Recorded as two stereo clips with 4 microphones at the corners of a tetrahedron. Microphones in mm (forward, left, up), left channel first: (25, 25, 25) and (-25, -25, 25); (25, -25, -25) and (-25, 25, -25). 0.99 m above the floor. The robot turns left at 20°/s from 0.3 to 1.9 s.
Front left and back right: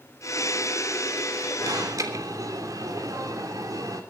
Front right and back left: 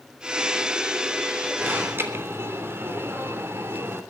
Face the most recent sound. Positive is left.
turn(degrees=-170)